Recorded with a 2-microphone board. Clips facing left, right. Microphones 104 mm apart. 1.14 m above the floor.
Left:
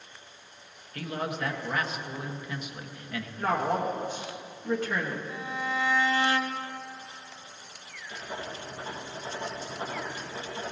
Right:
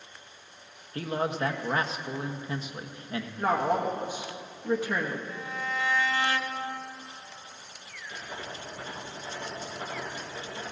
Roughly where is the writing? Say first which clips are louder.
Left 2 dB; left.